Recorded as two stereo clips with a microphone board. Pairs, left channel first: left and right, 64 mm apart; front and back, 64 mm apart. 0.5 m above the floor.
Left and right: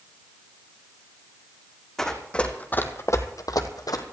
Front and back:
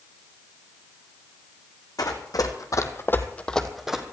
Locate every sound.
2.0 s running footsteps: 5° left, 2 m; by 4.0 s 100° left, 1.6 m